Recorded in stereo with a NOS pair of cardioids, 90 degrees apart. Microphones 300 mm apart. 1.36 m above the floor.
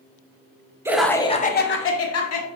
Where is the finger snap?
I don't hear a finger snap.